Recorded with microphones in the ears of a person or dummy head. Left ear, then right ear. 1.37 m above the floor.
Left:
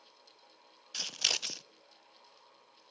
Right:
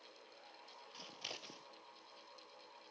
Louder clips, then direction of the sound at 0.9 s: Left 17 dB; 60° left (ahead or behind).